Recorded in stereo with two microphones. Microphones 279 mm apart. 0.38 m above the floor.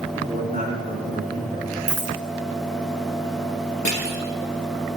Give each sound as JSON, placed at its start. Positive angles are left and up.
{"t": 0.1, "sound": "a man speaking", "side_deg": -25, "distance_m": 4.5}
{"t": 1.9, "sound": "a dropped coin", "side_deg": 25, "distance_m": 3.0}
{"t": 3.9, "sound": "crushing", "side_deg": 85, "distance_m": 4.0}